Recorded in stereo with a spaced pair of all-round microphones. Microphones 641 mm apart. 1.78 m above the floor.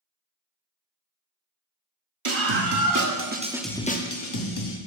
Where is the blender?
I don't hear a blender.